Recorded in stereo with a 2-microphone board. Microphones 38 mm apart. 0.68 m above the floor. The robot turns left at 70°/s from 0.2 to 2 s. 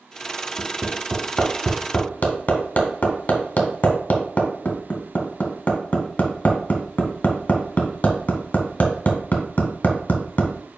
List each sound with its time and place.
0.6 s hammering: 50° right (ahead or behind), 1.5 m; by 10.5 s 45° left (ahead or behind), 1.5 m